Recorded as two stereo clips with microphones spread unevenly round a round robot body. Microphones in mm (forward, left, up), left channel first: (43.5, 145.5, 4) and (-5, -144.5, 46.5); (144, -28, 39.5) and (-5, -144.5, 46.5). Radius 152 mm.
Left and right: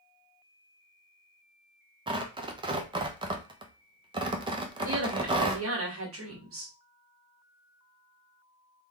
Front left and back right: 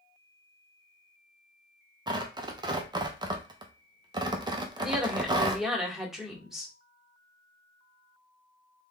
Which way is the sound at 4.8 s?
55° right.